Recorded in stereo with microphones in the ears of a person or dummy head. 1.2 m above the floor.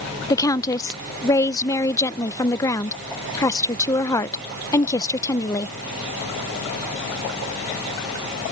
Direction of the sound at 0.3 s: 20° left (ahead or behind).